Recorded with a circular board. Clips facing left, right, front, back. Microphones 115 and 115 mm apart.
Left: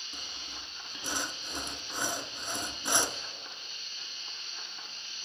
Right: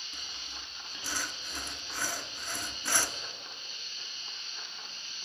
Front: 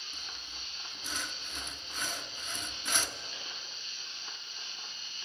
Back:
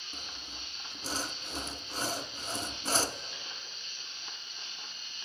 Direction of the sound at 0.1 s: 150° left.